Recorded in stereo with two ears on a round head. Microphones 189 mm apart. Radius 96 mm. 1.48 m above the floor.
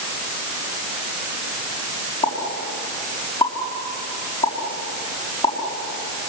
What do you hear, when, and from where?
2.2 s a pop: 25° left (ahead or behind), 5 m